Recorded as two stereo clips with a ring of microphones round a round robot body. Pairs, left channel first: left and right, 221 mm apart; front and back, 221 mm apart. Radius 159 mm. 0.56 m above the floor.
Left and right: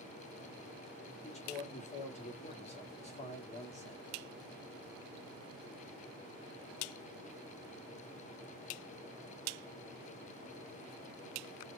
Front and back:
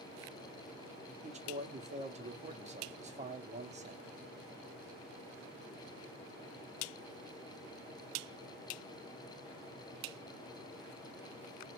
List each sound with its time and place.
1.2 s a man speaking: 135° left, 0.8 m